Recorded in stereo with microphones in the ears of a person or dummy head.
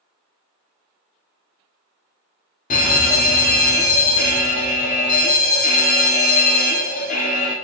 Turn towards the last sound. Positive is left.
turn(degrees=40)  # may be behind; listen again after turning